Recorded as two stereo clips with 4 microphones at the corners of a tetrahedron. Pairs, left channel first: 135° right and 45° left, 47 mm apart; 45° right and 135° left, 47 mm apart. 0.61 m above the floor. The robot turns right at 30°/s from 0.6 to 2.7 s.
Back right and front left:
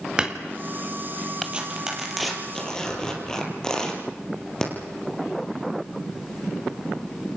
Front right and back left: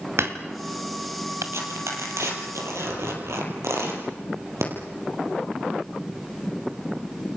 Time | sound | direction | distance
0.2 | hammering | 115° left | 2.0 m
1.5 | tearing paper | 115° left | 4.5 m